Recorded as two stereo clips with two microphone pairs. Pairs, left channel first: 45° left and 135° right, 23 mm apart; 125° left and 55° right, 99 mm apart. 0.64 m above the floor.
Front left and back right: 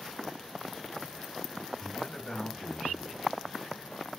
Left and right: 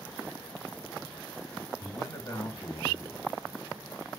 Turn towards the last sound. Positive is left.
turn(degrees=-5)